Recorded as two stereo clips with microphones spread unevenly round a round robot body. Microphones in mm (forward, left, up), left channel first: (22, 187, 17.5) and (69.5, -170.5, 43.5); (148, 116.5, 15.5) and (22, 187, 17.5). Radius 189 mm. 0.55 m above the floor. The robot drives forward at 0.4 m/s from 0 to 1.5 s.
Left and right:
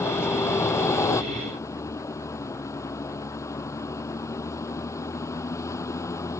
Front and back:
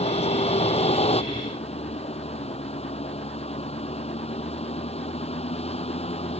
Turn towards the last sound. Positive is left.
turn(degrees=15)